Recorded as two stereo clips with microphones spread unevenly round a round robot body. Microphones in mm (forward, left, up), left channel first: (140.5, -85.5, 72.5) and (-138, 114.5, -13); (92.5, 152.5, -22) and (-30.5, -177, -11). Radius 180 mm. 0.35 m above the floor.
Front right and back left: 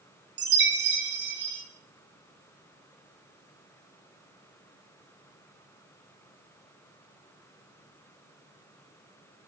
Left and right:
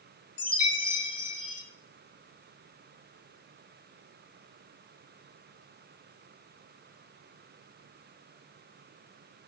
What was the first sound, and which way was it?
A chime, 110° left.